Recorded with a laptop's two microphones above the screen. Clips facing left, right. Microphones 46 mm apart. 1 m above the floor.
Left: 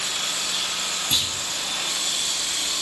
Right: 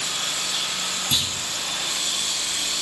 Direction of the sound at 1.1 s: Centre (ahead or behind).